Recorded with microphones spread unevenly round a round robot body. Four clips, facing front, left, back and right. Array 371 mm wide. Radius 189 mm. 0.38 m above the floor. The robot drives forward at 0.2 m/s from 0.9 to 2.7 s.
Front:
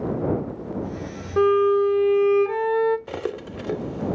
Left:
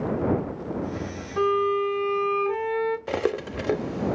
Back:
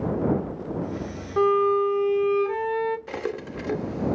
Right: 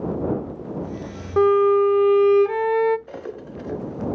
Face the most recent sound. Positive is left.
turn(degrees=75)